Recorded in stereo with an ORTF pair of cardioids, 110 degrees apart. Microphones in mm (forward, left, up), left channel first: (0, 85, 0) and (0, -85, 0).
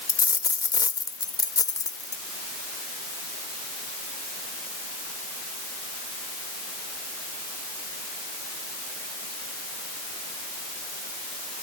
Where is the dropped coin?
25° left.